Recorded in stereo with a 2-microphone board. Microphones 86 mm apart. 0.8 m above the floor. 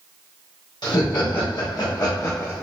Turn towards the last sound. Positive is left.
turn(degrees=25)  # may be behind; listen again after turning